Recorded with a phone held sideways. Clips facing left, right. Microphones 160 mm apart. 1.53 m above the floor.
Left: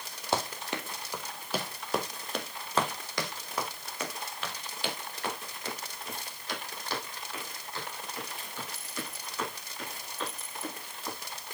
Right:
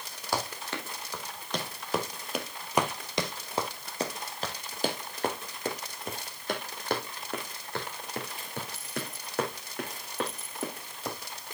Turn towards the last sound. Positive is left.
turn(degrees=-65)  # may be behind; listen again after turning